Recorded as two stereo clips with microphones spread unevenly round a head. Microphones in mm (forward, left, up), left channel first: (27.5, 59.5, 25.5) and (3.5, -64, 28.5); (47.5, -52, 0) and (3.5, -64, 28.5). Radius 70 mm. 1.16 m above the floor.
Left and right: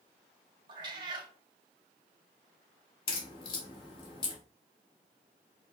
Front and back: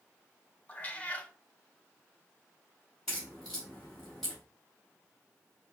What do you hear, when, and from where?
0.7 s a cat meowing: 80° right, 0.7 m
3.1 s a crack: 130° left, 0.9 m